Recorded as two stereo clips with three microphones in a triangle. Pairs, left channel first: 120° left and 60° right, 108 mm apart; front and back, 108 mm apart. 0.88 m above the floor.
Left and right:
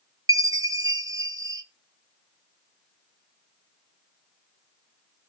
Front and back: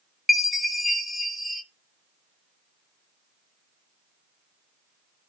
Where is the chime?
90° right, 0.7 m.